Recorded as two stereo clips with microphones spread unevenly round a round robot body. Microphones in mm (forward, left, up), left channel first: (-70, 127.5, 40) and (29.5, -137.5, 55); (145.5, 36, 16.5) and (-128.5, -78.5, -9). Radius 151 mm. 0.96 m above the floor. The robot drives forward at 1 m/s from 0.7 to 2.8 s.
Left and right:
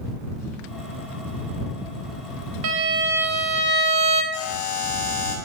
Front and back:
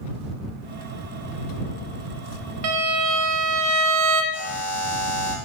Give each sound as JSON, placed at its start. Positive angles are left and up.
{"t": 2.6, "sound": "a violin", "azimuth_deg": -115, "distance_m": 0.7}
{"t": 4.3, "sound": "a buzzer", "azimuth_deg": 115, "distance_m": 3.0}